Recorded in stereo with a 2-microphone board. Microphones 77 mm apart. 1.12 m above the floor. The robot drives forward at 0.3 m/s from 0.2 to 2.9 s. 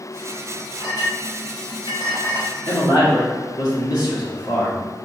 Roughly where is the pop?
I don't hear a pop.